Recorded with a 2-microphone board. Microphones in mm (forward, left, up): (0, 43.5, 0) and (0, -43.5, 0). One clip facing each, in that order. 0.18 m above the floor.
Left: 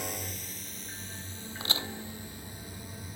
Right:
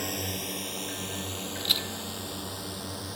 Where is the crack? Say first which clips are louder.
Left 3 dB; 25° left (ahead or behind).